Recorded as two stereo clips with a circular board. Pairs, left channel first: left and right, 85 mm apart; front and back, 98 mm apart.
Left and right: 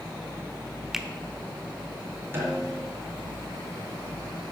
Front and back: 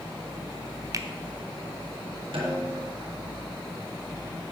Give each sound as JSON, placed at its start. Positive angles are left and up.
{"t": 0.9, "sound": "a finger snap", "azimuth_deg": -175, "distance_m": 0.8}
{"t": 2.3, "sound": "a snare drum", "azimuth_deg": -150, "distance_m": 4.0}